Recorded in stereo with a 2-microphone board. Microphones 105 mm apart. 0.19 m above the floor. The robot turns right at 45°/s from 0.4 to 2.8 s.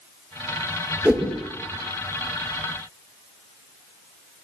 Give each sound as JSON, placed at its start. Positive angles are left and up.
{"t": 1.1, "sound": "a whoosh", "side_deg": -15, "distance_m": 4.0}